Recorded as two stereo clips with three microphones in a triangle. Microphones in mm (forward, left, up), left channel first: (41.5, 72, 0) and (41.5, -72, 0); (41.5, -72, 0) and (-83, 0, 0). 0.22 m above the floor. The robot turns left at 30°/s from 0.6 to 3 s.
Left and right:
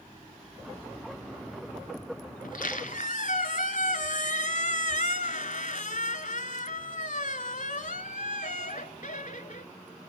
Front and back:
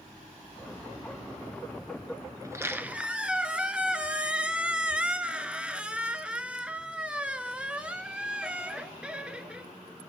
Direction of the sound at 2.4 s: 85° left.